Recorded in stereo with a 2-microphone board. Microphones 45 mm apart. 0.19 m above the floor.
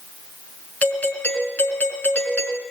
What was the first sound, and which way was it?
A doorbell, 35° left (ahead or behind).